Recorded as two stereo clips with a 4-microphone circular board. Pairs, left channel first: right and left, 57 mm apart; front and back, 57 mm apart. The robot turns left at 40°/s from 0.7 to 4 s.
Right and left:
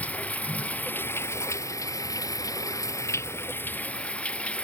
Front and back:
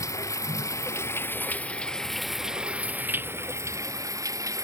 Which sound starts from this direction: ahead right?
Running water, at 0.0 s.